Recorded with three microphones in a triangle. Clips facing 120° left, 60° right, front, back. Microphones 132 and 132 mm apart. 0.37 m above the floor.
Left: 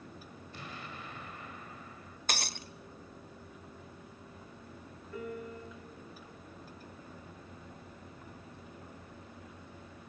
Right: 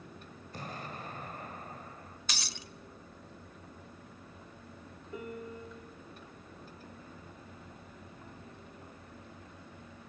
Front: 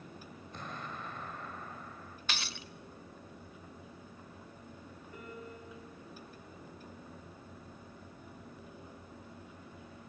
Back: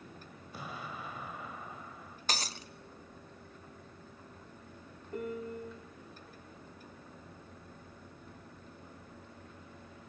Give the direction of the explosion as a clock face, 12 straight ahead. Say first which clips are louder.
Right 4 dB, back 1 dB; 3 o'clock.